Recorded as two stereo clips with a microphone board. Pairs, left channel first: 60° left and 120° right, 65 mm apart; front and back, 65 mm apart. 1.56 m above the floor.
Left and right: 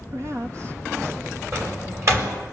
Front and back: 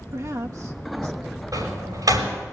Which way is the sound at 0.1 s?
155° right.